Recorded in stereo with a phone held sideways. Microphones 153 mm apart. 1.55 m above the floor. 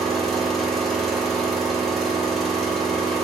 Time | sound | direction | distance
0.0 | an engine running | centre (ahead or behind) | 1.1 m